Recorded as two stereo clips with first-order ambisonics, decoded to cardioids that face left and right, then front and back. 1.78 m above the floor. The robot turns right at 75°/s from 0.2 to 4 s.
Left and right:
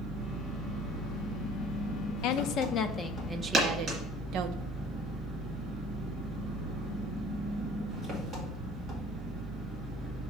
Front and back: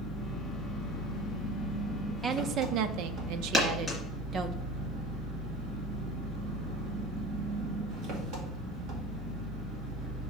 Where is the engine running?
80° right, 1.9 m; by 10.3 s 155° right, 1.9 m.